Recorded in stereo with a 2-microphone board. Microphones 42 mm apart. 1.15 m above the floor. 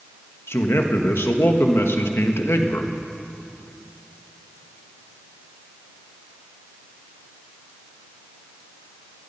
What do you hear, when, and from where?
0.5 s a man speaking: 80° left, 1.2 m